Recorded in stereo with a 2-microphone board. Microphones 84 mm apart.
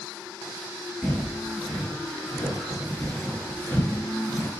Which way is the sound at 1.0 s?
10° left (ahead or behind).